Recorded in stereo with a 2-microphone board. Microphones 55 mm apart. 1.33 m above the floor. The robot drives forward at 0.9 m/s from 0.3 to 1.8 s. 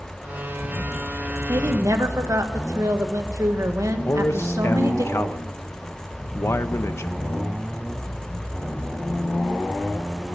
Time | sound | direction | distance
1.5 | a woman speaking | 80° right | 1.6 m
4.0 | a man speaking | 55° left (ahead or behind) | 0.9 m